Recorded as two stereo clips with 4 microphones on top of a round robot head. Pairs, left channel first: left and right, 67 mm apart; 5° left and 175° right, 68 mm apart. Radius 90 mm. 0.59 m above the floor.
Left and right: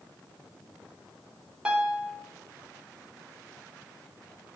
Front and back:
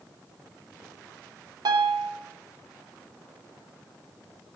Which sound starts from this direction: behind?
A piano, at 1.6 s.